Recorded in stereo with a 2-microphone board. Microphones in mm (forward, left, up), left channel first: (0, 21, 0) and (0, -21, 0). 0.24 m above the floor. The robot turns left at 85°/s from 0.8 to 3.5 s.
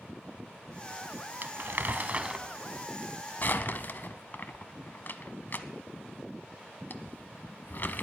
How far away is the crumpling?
About 0.8 m.